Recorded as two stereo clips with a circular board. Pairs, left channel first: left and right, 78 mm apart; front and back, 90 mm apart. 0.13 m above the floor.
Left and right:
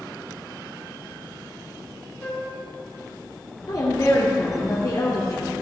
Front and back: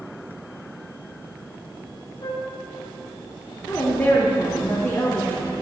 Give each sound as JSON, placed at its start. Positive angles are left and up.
{"t": 2.2, "sound": "a flute", "azimuth_deg": 35, "distance_m": 4.0}
{"t": 3.7, "sound": "a woman speaking", "azimuth_deg": 60, "distance_m": 2.5}